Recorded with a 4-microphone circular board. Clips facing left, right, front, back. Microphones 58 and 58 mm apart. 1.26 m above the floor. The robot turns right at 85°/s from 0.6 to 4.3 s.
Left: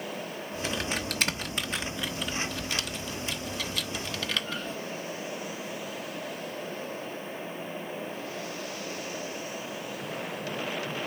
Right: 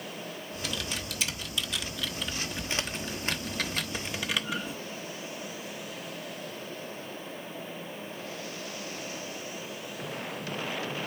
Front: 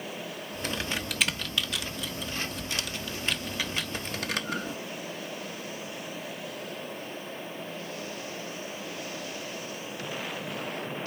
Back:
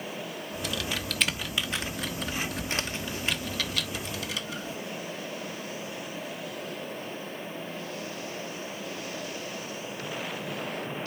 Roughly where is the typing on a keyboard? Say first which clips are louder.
Left 4 dB, front 1 dB; ahead left.